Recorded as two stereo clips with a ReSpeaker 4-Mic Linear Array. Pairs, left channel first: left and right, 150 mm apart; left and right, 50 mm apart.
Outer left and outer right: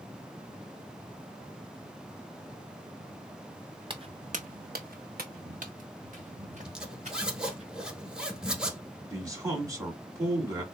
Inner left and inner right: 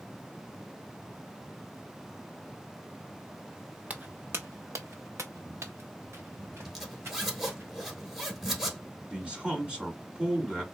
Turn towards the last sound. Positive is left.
turn(degrees=-20)  # may be behind; listen again after turning